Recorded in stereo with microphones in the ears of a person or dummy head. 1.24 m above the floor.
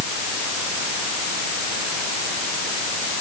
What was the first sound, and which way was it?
Only background noise.